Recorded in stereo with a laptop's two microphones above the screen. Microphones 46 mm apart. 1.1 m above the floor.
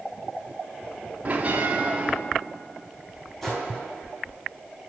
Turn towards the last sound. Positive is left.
turn(degrees=10)  # may be behind; listen again after turning